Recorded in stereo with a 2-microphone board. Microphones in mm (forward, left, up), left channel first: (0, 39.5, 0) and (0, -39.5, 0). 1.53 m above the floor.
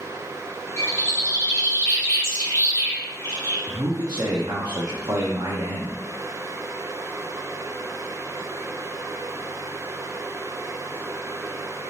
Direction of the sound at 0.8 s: 35° left (ahead or behind).